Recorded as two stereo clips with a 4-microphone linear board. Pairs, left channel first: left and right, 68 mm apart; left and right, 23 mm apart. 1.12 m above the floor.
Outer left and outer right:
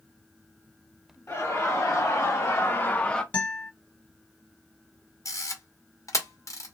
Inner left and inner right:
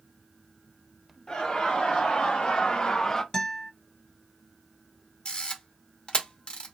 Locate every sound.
1.3 s laughter: 35° left (ahead or behind), 1.2 m; by 3.2 s 10° left (ahead or behind), 0.5 m
3.3 s a guitar: 20° left (ahead or behind), 1.1 m
5.2 s a camera shutter: 50° left (ahead or behind), 0.9 m